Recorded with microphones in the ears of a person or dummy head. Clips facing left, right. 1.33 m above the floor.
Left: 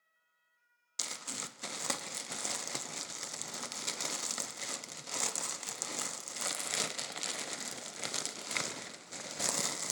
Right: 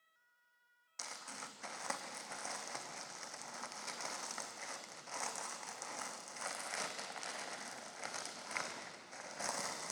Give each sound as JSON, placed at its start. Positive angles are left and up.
{"t": 1.0, "sound": "crumpling", "side_deg": 45, "distance_m": 0.6}